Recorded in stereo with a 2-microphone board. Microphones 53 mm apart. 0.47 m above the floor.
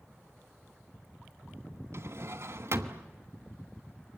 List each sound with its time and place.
1.9 s a drawer: 65° right (ahead or behind), 1.2 m